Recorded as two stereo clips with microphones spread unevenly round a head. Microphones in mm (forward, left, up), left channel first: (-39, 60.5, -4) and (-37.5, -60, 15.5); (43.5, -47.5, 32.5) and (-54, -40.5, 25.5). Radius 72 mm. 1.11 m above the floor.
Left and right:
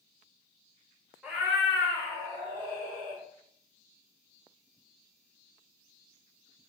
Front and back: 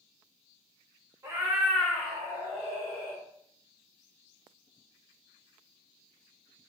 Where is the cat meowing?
155° right, 0.7 m; by 3.2 s 40° right, 1.6 m.